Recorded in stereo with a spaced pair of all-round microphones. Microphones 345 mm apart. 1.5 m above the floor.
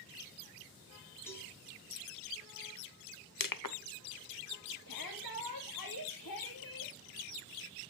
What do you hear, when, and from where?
1.3 s a cowbell: 5° left (ahead or behind), 3.5 m
3.4 s crushing: 70° left (ahead or behind), 0.7 m
4.9 s a shout: 75° left (ahead or behind), 2.5 m